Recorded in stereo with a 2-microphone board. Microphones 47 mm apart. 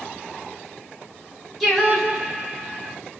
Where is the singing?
5° right (ahead or behind), 0.9 m.